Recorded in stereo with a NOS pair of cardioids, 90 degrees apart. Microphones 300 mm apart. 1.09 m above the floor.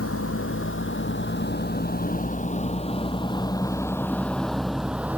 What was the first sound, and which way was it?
A vehicle, 50° left.